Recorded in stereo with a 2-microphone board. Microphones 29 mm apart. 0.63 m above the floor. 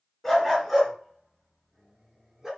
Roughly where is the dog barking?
Centre.